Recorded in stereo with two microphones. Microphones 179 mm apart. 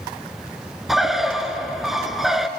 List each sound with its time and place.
0.9 s a bird: centre (ahead or behind), 1.2 m